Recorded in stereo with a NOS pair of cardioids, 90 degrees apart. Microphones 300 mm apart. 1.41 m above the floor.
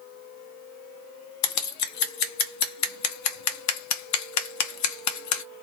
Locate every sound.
1.4 s scissors: 65° left, 0.8 m